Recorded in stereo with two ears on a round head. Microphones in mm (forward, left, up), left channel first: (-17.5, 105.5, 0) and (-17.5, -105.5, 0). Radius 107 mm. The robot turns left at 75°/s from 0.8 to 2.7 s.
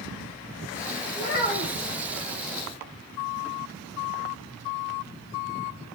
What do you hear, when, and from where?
1.1 s a child speaking: 70° left, 1.5 m; by 1.9 s 15° left, 1.5 m